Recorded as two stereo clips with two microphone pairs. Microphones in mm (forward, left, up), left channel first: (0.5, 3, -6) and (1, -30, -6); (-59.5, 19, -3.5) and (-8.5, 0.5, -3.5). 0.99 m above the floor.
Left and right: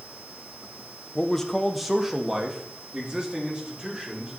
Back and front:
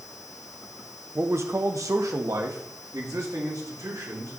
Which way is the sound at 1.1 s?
15° left.